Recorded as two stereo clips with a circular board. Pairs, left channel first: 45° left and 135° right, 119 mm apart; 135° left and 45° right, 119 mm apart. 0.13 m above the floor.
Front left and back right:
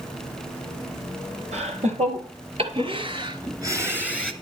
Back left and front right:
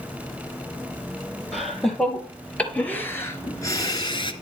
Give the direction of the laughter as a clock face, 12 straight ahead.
4 o'clock.